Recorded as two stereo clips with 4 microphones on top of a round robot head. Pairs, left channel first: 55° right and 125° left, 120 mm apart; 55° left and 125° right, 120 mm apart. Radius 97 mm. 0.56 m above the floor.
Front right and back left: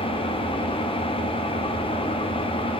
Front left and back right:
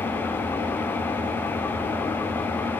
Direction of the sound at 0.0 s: 15° right.